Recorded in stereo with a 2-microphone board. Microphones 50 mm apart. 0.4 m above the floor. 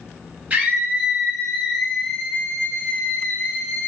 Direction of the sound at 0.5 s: 30° right (ahead or behind).